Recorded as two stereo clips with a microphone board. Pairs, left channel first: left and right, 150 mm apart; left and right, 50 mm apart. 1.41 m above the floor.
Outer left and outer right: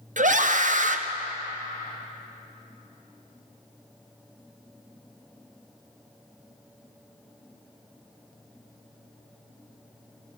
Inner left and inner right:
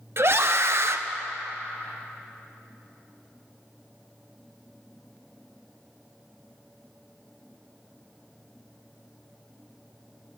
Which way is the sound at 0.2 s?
55° right (ahead or behind).